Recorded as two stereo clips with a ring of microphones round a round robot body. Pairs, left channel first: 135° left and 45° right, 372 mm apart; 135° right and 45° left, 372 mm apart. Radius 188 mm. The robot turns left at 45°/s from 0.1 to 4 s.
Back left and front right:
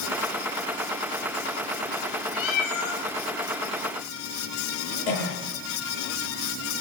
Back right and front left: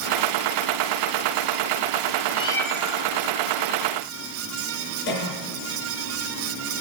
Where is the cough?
165° left, 7 m.